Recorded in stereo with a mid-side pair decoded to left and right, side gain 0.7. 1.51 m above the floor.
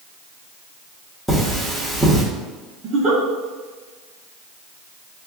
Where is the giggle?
45° right, 1.2 m.